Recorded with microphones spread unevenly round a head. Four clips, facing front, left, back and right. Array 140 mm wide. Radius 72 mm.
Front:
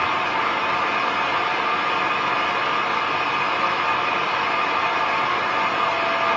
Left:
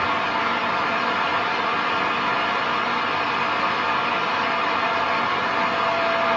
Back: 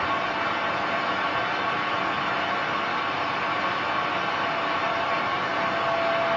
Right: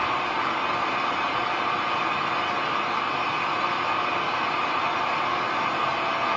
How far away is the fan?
About 1.3 m.